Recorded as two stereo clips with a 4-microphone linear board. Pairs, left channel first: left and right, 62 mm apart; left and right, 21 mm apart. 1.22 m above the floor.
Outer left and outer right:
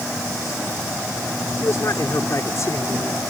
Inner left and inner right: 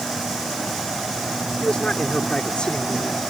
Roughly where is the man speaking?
Left.